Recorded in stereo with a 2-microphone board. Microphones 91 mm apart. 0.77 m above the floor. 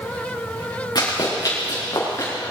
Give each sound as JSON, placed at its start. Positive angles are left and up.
{"t": 0.9, "sound": "running footsteps", "side_deg": 50, "distance_m": 4.5}